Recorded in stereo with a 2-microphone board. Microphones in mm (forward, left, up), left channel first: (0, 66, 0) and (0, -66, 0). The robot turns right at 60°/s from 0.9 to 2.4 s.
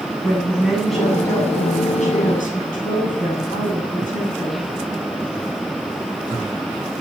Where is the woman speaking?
Straight ahead, 8.5 m; by 4.7 s 90° left, 8.5 m.